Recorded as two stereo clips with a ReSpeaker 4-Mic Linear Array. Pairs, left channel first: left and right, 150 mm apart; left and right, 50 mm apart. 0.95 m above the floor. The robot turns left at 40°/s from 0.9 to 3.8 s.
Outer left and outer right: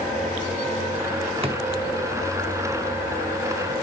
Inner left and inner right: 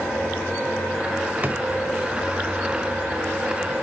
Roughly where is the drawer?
Right.